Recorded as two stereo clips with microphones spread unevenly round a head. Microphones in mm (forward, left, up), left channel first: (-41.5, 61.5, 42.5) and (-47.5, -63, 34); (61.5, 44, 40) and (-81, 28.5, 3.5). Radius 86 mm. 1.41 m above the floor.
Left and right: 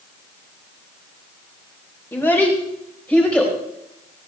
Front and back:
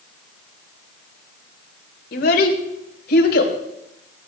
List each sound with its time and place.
2.1 s a child speaking: 10° left, 3.5 m; by 3.5 s 5° left, 4 m